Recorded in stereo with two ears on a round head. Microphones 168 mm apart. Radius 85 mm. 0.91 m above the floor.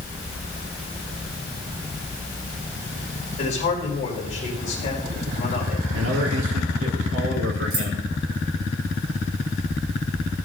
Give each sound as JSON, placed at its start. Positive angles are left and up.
{"t": 3.4, "sound": "a man speaking", "side_deg": 40, "distance_m": 4.5}
{"t": 5.9, "sound": "a man speaking", "side_deg": -80, "distance_m": 2.0}
{"t": 7.7, "sound": "keys jangling", "side_deg": -50, "distance_m": 4.0}